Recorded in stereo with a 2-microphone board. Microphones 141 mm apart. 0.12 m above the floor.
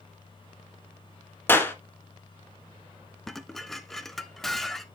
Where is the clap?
15° left (ahead or behind), 1.2 m.